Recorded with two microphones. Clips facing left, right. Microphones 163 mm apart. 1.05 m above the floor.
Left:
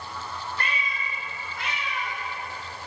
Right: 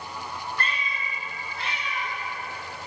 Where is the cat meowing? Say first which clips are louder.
Even; 15° left (ahead or behind), 1.2 m; by 2.1 s 50° right (ahead or behind), 1.9 m.